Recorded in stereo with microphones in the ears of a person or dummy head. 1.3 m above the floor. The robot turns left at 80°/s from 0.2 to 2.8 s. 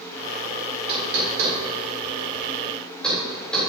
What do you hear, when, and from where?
0.9 s knocking: 30° right (ahead or behind), 4 m; by 3.6 s 5° left (ahead or behind), 4 m